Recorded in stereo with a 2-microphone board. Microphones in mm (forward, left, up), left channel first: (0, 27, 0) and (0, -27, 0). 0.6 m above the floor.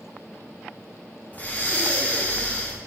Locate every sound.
1.3 s breathing: 30° left (ahead or behind), 0.6 m